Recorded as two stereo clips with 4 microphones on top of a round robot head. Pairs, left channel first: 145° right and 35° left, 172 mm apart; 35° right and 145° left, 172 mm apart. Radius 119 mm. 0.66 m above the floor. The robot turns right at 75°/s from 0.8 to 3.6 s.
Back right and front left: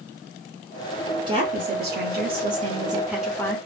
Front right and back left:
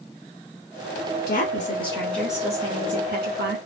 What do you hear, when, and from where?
1.3 s a woman speaking: 20° right, 1.8 m; by 3.6 s 150° left, 1.8 m